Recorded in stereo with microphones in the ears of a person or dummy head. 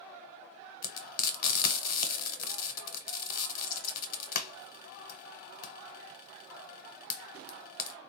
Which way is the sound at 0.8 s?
50° left (ahead or behind).